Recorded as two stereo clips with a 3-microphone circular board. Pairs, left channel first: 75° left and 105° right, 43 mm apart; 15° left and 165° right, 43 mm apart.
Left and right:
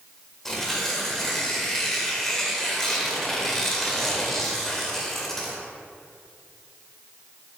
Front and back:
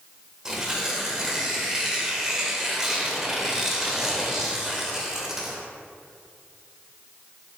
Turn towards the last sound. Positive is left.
turn(degrees=145)